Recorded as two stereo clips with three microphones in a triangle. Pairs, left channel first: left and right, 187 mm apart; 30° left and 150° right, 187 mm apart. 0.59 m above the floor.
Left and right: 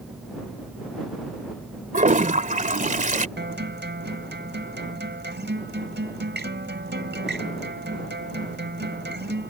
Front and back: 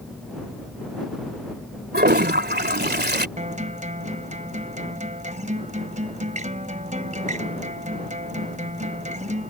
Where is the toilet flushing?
130° right.